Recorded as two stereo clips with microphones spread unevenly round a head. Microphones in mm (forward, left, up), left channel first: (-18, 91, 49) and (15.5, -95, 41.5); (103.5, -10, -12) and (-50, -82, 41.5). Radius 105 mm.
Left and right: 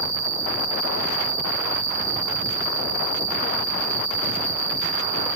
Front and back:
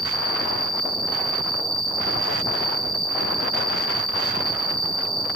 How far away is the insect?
About 1.6 m.